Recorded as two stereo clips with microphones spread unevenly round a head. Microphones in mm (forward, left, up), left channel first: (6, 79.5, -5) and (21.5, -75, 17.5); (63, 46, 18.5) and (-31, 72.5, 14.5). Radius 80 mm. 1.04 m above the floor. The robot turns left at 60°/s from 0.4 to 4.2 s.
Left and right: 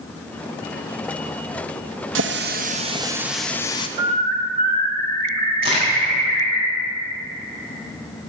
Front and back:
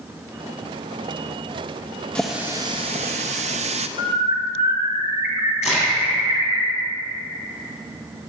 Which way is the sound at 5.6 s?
30° right.